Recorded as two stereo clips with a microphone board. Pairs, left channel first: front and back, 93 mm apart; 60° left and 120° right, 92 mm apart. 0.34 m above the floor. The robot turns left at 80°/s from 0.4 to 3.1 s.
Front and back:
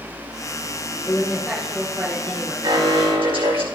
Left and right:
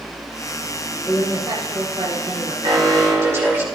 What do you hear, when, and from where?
1.0 s a woman speaking: 55° right, 3.5 m; by 2.5 s 175° right, 3.5 m
2.6 s an alarm: 140° right, 5 m; by 3.6 s straight behind, 5 m